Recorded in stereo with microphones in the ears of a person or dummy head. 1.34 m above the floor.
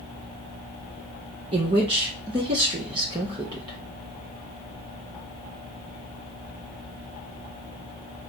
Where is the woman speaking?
25° right (ahead or behind), 0.7 m.